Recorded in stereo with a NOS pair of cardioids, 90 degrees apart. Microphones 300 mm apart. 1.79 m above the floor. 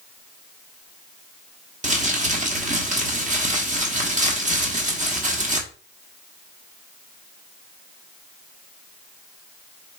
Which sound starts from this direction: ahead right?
Crumpling, at 1.8 s.